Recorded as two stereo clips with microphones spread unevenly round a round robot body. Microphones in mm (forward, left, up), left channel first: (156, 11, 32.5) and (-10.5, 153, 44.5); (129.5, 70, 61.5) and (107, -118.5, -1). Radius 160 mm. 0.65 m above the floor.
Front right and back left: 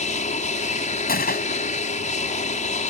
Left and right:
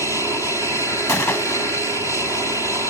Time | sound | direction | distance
0.0 | an aircraft | 5° right | ?
1.1 | a gunshot | 10° left | ?